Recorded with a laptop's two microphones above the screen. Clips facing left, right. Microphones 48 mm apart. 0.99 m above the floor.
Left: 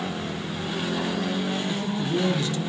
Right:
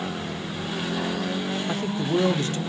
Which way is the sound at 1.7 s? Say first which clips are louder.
Right 1 dB; 45° right (ahead or behind).